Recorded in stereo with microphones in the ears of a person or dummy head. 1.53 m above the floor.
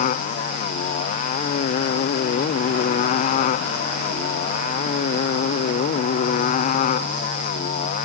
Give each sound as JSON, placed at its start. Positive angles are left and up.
{"t": 0.0, "sound": "a motorcycle", "side_deg": 35}